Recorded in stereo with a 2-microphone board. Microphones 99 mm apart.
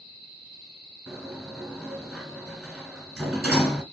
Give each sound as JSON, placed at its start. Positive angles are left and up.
{"t": 1.1, "sound": "a sliding door", "side_deg": -5, "distance_m": 1.4}